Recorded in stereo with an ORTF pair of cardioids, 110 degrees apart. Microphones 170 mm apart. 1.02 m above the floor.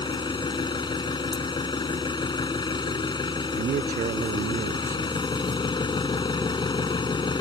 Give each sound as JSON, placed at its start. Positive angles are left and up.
{"t": 0.0, "sound": "an engine running", "azimuth_deg": 25}
{"t": 3.6, "sound": "a man speaking", "azimuth_deg": -50}